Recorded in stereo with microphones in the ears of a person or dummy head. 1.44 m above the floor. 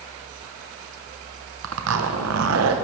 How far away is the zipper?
About 1.1 m.